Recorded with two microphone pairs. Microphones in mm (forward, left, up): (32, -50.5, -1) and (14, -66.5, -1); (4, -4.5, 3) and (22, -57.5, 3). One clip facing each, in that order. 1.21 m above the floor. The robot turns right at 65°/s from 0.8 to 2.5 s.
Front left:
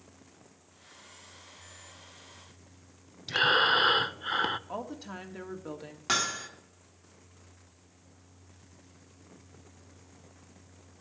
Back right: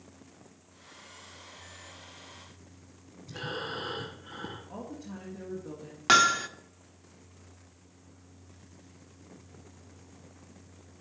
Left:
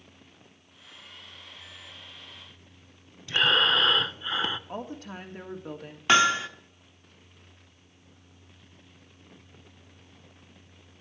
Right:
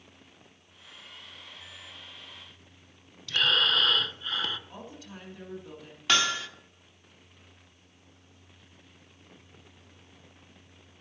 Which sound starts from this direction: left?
A woman speaking, at 4.7 s.